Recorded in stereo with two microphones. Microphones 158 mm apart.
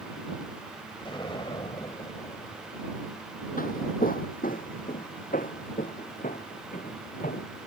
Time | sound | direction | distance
1.0 | an explosion | 30° left (ahead or behind) | ?
3.6 | footsteps | 65° left (ahead or behind) | ?